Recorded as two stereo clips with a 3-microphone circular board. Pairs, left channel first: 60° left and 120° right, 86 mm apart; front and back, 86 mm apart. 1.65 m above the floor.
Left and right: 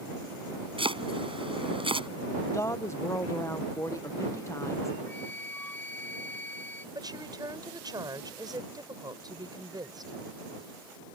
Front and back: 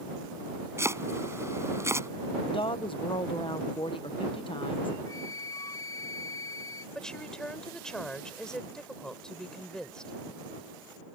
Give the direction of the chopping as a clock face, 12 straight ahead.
4 o'clock.